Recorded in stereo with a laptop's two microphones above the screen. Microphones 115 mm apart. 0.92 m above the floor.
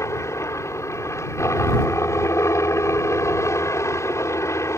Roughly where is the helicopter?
Left.